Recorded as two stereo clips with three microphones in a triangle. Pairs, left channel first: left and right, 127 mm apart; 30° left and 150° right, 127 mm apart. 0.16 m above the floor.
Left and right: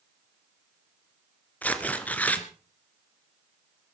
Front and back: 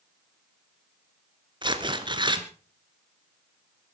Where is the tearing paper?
165° left, 1.7 m.